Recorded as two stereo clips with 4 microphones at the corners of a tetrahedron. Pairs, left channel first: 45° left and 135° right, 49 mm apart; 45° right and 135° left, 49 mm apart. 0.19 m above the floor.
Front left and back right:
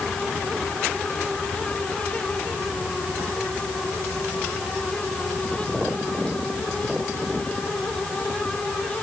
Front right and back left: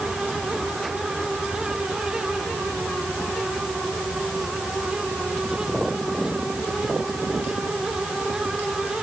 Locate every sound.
Only background noise.